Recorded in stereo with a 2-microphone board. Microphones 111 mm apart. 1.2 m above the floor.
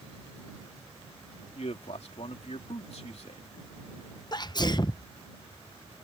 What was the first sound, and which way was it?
A man speaking, 70° left (ahead or behind).